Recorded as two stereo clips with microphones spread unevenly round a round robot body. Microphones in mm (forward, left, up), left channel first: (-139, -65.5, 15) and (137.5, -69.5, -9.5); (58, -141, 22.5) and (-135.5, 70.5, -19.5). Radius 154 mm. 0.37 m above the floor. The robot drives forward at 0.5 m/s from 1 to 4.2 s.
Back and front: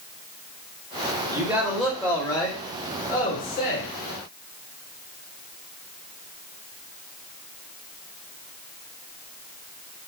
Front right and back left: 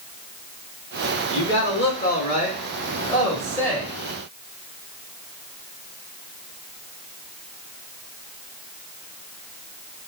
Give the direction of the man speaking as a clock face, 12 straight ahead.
2 o'clock.